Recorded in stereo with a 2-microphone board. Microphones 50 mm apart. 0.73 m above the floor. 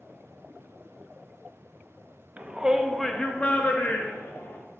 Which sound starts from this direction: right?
A shout, at 2.4 s.